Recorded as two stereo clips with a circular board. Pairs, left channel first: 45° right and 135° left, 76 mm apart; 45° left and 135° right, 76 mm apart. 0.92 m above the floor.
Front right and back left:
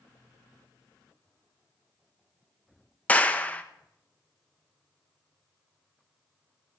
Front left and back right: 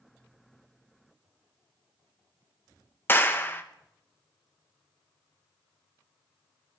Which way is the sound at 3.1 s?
10° left.